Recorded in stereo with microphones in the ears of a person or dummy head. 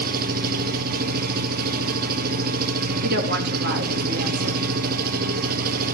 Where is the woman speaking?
55° right (ahead or behind), 3 m.